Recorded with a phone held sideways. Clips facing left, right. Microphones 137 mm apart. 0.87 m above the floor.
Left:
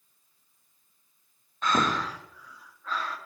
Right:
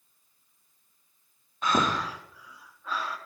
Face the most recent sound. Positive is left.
turn(degrees=-10)  # may be behind; listen again after turning